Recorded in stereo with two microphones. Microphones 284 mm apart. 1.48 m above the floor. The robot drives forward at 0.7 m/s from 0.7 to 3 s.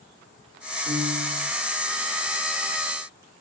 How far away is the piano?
About 2 m.